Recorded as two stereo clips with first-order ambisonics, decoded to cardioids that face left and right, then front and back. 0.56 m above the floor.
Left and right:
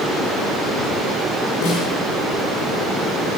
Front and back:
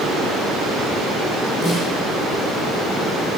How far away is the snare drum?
About 5.5 m.